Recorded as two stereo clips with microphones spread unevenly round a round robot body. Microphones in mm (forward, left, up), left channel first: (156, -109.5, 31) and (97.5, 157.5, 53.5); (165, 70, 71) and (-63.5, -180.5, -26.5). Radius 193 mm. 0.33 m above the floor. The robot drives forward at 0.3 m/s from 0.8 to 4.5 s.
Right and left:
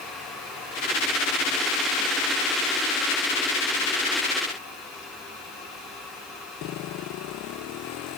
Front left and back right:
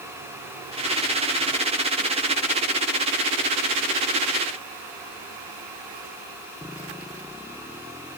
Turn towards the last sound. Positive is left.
No sound to turn to.